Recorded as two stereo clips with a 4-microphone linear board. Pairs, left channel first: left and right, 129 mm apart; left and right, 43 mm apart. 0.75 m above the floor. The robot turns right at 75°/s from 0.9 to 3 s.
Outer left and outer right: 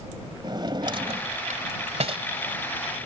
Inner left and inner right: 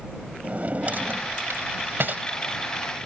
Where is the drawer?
40° right (ahead or behind).